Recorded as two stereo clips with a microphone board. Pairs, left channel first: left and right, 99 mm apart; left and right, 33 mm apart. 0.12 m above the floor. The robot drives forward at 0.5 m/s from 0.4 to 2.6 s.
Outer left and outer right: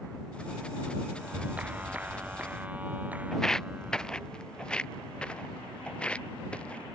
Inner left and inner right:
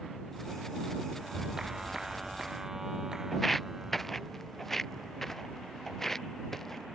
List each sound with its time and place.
1.2 s a clap: 15° right (ahead or behind)
3.3 s footsteps: 5° left (ahead or behind); by 6.9 s 10° left (ahead or behind)